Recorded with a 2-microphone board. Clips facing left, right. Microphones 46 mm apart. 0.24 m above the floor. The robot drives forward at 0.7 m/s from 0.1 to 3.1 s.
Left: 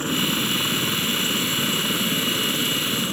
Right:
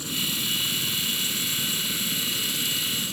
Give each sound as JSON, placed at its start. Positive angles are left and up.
{"t": 0.0, "sound": "a helicopter", "side_deg": 45}